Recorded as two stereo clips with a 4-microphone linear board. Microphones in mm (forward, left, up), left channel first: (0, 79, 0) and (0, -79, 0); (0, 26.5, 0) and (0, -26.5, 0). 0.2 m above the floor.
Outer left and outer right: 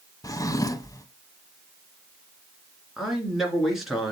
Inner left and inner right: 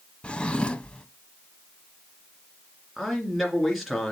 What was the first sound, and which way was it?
A drawer, 25° left (ahead or behind).